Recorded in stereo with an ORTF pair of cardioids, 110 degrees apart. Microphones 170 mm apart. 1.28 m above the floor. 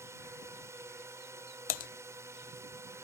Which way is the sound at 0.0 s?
15° right.